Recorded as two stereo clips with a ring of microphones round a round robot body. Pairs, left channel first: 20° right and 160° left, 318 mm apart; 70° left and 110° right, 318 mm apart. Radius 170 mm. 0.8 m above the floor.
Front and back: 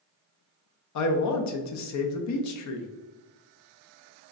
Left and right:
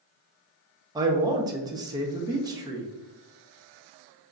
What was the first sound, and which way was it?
A man speaking, 35° right.